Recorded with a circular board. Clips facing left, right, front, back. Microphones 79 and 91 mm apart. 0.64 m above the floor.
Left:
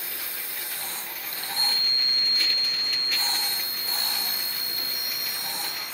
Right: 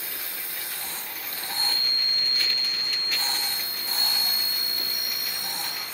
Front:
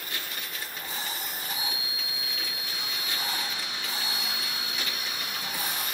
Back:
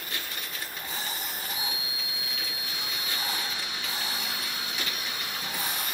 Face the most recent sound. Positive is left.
turn(degrees=60)